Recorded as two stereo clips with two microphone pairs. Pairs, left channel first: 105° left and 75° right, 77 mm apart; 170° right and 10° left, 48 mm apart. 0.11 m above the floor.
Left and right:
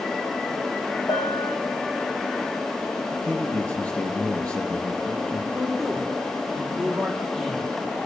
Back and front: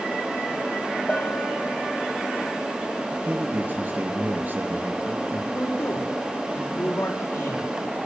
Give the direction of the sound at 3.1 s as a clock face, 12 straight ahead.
11 o'clock.